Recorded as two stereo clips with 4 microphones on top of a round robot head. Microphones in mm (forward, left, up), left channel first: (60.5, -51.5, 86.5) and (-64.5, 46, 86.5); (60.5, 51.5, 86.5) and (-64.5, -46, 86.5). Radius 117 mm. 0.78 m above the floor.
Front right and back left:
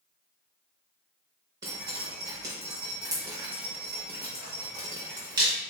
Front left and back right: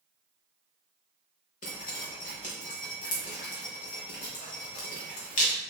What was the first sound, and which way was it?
Dripping, 75° left.